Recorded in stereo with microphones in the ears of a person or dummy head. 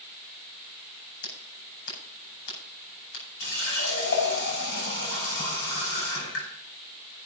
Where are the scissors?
85° left, 5.5 m.